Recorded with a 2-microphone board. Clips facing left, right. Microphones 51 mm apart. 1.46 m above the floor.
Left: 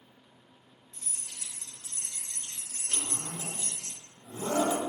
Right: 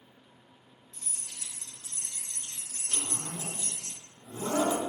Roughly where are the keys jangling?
Centre.